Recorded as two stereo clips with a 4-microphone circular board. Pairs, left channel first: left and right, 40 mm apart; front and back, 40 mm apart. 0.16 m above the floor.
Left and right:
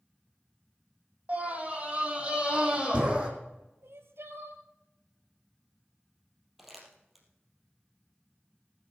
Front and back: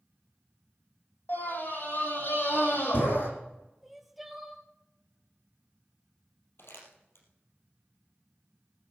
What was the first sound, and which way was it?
A scream, 35° right.